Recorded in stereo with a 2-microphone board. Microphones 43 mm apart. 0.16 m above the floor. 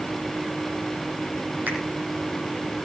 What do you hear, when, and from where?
1.7 s a finger snap: 50° right (ahead or behind), 7.5 m